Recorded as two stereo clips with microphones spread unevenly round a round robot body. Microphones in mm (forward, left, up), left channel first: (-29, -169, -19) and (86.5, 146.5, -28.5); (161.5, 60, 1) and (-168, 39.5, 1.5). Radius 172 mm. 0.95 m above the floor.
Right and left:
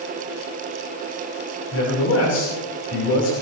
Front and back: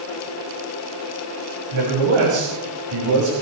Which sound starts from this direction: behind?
A man speaking, at 1.7 s.